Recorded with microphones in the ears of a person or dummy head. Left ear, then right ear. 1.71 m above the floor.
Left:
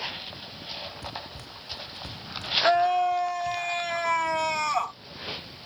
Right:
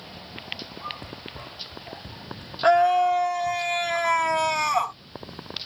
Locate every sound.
1.0 s running footsteps: 35° left (ahead or behind); by 3.6 s 50° left (ahead or behind)
2.6 s a scream: 10° right (ahead or behind)